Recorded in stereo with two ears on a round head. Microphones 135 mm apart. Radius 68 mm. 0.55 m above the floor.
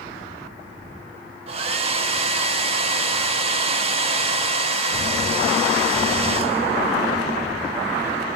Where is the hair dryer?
40° right (ahead or behind), 0.6 m.